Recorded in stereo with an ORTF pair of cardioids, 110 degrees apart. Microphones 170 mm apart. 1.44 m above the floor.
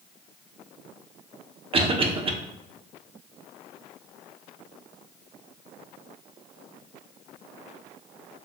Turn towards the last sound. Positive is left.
turn(degrees=-35)